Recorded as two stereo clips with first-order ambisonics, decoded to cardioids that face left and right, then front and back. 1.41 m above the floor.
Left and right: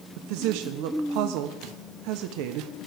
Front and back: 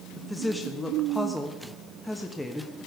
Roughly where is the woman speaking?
Right.